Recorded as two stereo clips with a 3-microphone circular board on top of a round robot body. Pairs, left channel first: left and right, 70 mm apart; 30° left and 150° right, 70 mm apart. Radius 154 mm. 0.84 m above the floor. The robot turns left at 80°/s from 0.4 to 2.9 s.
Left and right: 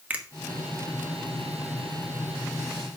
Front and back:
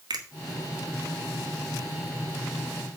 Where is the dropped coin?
I don't hear a dropped coin.